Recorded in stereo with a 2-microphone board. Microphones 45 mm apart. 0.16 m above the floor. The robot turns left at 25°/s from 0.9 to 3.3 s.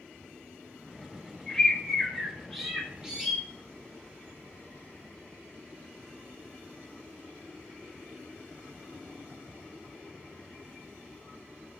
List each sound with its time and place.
1.5 s a bird: 20° left, 0.8 m; by 3.4 s 30° right, 0.8 m